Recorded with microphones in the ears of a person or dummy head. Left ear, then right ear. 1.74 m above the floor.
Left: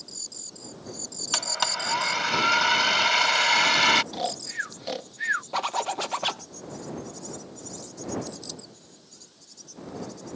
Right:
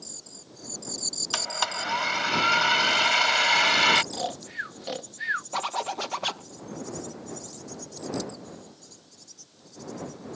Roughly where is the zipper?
Centre.